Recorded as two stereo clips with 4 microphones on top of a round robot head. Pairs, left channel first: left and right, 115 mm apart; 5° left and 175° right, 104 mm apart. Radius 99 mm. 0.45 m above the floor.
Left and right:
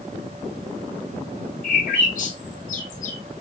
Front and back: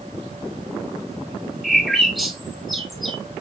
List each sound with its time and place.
1.6 s a bird: 95° left, 0.8 m